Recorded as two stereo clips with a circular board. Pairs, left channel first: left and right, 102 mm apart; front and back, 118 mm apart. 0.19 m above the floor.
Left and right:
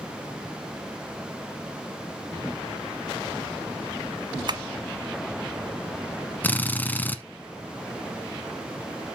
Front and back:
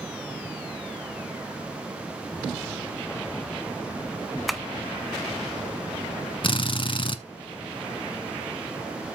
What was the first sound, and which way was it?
Tapping, 90° right.